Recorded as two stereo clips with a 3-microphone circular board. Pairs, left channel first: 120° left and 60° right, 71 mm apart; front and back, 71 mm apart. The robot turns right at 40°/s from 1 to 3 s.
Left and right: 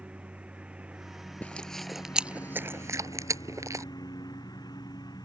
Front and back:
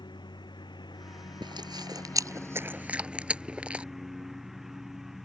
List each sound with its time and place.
0.0 s a lawn mower: 15° left; by 5.2 s 95° left
1.4 s chewing: 170° right; by 3.9 s 105° right